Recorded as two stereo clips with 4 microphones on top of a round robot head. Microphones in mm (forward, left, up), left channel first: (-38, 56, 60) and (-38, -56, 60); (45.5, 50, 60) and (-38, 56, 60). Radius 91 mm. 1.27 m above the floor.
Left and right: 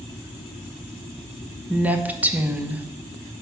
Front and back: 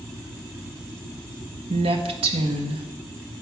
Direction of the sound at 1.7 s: 170° right.